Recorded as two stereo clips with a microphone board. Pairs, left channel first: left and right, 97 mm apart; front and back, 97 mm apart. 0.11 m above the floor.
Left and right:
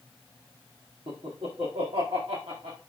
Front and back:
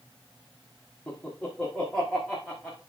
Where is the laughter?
85° right, 4.5 m; by 2.8 s 95° right, 5.5 m.